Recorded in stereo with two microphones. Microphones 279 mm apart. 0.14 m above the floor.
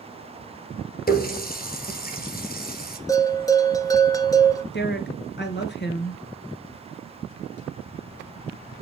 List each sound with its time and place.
1.1 s a running tap: 35° left (ahead or behind), 1.7 m
3.1 s a bell: 10° left (ahead or behind), 1.2 m
4.7 s a woman speaking: 40° left (ahead or behind), 1.8 m